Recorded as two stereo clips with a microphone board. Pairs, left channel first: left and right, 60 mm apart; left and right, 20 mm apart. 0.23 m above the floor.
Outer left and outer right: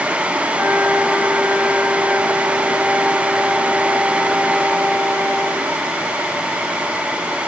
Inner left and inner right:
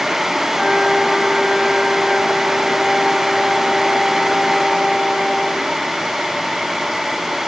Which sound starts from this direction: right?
A flute, at 0.5 s.